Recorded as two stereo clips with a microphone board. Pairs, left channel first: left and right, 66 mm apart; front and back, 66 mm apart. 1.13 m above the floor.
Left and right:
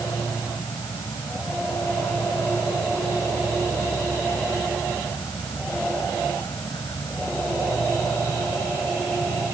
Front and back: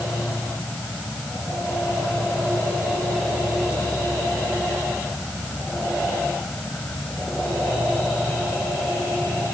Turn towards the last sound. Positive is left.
turn(degrees=75)